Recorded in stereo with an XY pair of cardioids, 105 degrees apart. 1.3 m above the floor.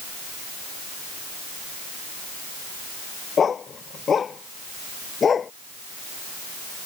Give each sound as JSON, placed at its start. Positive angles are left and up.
{"t": 3.4, "sound": "a dog barking", "azimuth_deg": 40}